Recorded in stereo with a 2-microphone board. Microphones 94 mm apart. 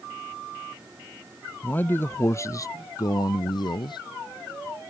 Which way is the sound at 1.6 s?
20° left (ahead or behind).